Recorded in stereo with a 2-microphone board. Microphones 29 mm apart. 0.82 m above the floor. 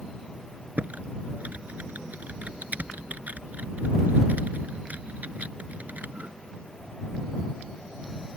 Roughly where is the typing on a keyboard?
Right.